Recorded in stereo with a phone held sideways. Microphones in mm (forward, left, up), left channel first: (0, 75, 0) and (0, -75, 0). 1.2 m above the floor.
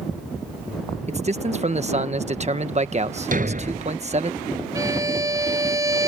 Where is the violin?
25° right (ahead or behind).